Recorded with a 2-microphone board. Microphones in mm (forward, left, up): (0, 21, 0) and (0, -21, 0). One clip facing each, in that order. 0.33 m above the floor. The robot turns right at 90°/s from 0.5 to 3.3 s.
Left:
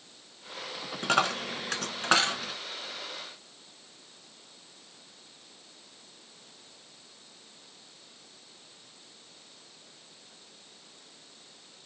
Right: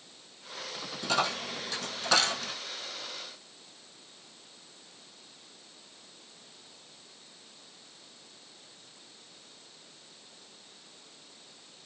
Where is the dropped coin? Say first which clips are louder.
Left 3 dB; 40° left (ahead or behind), 0.9 m; by 2.5 s centre (ahead or behind), 0.9 m.